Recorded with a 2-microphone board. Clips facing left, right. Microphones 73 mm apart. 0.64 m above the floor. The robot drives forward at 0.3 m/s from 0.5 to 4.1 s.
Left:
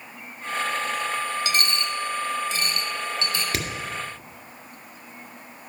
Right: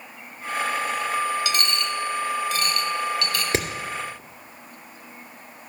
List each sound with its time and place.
1.4 s a dropped coin: 40° left (ahead or behind), 1.2 m; by 3.4 s 25° left (ahead or behind), 1.7 m
3.5 s hammering: 25° right (ahead or behind), 2 m